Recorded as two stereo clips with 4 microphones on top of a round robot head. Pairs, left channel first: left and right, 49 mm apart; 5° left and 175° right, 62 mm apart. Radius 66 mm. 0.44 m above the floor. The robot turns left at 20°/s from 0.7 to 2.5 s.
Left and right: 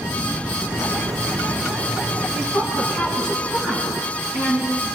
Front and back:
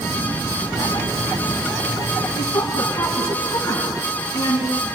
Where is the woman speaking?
40° left, 5 m.